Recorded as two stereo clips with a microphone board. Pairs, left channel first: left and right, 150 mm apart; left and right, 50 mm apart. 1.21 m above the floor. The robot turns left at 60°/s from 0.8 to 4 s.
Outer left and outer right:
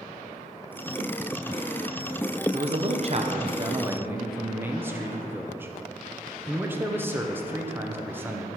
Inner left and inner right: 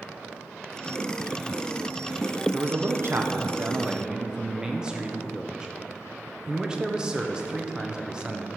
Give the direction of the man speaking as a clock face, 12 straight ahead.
2 o'clock.